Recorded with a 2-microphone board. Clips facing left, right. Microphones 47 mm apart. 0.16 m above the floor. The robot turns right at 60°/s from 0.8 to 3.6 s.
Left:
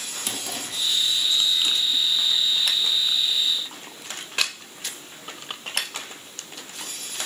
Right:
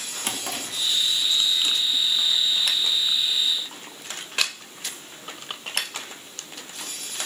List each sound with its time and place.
0.2 s a drawer: 40° right (ahead or behind), 0.7 m